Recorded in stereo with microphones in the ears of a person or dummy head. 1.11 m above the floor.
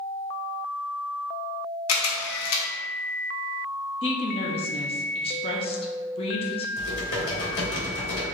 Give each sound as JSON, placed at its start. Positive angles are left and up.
{"t": 1.9, "sound": "a camera shutter", "side_deg": 85, "distance_m": 0.9}
{"t": 4.0, "sound": "a woman speaking", "side_deg": 25, "distance_m": 0.6}
{"t": 6.8, "sound": "typing on a keyboard", "side_deg": 80, "distance_m": 1.8}